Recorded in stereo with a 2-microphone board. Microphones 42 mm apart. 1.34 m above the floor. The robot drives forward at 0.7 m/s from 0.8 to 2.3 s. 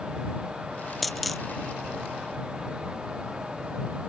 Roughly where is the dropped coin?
Centre.